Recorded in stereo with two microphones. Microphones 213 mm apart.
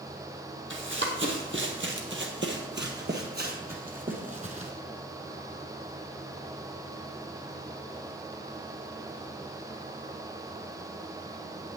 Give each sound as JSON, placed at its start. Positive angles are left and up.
{"t": 0.7, "sound": "running footsteps", "side_deg": -65, "distance_m": 2.0}